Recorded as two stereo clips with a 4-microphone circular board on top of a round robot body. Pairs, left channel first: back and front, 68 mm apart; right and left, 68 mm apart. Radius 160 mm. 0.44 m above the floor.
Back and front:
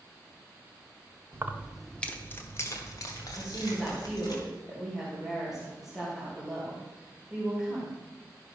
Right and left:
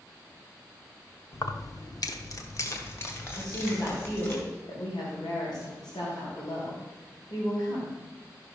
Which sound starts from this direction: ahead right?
Keys jangling, at 1.3 s.